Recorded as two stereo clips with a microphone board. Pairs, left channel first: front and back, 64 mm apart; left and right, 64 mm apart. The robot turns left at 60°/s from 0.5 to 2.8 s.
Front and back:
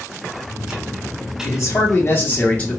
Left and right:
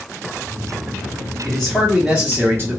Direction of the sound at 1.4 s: 20° left.